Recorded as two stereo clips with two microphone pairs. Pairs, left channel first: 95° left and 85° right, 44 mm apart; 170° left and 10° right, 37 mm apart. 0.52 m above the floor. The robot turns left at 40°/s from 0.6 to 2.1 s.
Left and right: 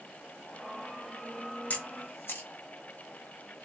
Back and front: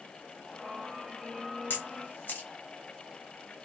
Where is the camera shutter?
150° left, 1.0 m; by 2.5 s 135° left, 1.0 m.